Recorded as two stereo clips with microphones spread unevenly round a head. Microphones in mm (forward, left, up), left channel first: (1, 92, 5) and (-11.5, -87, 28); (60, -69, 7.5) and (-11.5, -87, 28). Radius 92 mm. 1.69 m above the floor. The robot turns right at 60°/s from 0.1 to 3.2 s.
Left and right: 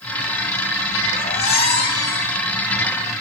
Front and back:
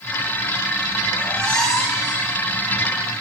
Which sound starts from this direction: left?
A squeak, at 1.1 s.